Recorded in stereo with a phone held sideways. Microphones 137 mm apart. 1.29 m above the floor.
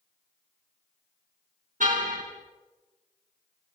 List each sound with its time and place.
1.8 s a car horn: 75° right (ahead or behind), 6.5 m